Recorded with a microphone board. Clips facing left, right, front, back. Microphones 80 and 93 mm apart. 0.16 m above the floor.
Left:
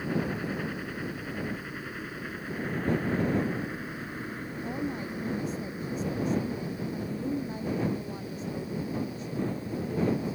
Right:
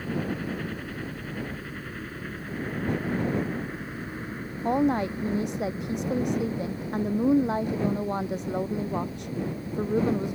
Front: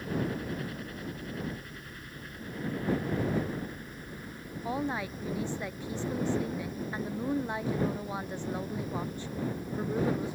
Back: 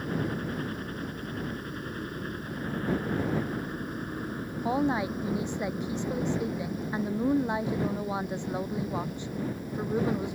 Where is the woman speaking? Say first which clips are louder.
Right 12 dB, back 6 dB; 105° right.